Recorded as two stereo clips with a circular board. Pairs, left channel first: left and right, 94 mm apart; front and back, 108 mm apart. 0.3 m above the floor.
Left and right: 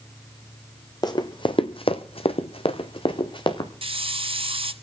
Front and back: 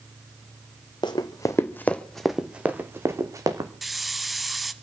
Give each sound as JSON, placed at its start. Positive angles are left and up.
{"t": 1.0, "sound": "running footsteps", "azimuth_deg": 45, "distance_m": 1.2}
{"t": 3.8, "sound": "a hiss", "azimuth_deg": -90, "distance_m": 0.8}